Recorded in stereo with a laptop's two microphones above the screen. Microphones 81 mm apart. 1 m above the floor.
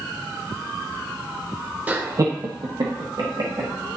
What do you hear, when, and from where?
1.9 s laughter: 20° right (ahead or behind), 0.8 m; by 3.7 s 75° right (ahead or behind), 1.9 m